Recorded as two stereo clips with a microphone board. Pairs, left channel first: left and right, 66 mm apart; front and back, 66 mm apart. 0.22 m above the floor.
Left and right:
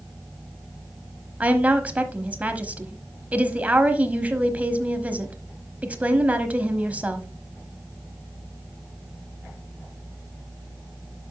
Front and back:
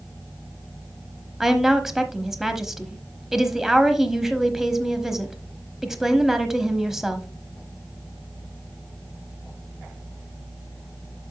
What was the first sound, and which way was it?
A woman speaking, 105° right.